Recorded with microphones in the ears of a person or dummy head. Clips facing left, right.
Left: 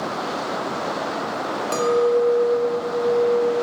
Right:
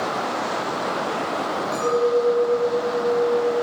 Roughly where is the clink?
Left.